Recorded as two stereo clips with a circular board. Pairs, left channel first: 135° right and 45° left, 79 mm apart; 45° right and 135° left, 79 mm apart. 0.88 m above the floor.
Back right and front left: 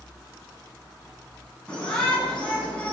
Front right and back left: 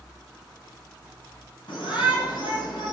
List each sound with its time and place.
1.7 s a shout: 55° right, 7.5 m; by 2.9 s 60° right, 7.5 m